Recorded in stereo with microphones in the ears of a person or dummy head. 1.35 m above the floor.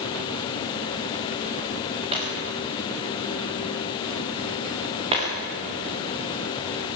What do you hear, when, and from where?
2.1 s breaking glass: 35° right (ahead or behind), 7 m